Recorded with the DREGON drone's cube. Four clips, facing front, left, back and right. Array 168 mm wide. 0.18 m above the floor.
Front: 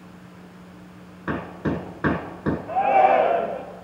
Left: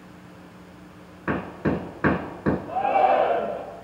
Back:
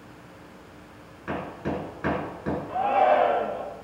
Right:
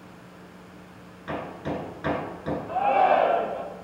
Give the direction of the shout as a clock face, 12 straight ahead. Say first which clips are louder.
Even, front 4 dB; 11 o'clock.